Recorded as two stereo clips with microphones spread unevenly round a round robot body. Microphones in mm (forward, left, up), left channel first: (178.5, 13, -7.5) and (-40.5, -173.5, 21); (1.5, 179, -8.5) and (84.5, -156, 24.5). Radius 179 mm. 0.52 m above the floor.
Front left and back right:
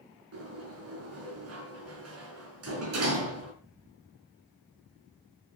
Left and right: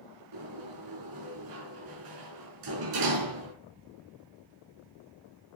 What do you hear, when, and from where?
0.3 s a sliding door: 110° right, 5 m